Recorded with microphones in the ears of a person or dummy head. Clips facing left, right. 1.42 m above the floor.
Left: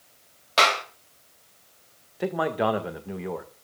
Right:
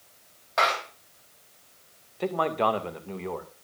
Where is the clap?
40° left (ahead or behind), 3.5 m.